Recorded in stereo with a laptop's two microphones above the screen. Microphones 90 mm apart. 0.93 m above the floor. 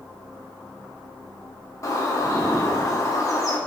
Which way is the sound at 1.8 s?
35° left (ahead or behind).